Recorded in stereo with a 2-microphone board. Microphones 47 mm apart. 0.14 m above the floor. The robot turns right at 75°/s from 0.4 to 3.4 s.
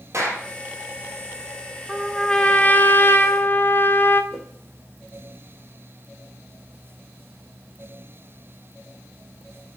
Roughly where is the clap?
Right.